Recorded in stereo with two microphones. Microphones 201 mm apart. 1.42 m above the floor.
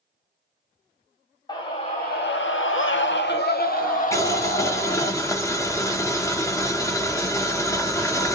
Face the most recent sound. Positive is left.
turn(degrees=15)  # may be behind; listen again after turning